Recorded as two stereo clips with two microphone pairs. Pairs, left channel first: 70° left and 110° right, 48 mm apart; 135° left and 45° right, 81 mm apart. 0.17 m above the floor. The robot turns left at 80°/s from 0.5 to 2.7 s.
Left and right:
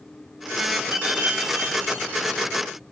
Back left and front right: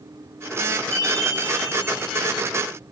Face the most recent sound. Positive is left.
turn(degrees=75)